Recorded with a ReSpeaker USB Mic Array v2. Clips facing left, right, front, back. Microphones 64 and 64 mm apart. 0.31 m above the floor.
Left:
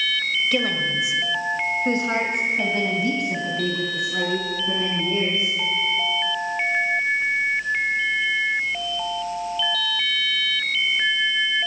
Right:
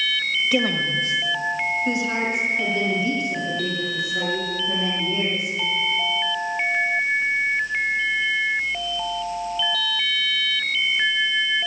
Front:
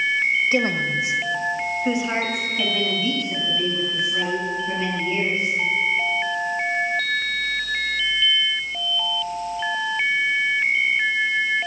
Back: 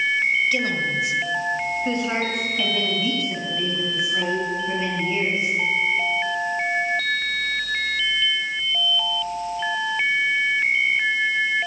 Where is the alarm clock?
I don't hear an alarm clock.